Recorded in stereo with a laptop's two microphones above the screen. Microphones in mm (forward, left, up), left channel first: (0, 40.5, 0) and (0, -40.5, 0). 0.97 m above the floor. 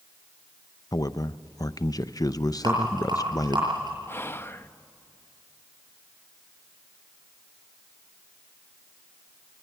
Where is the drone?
No drone in this recording.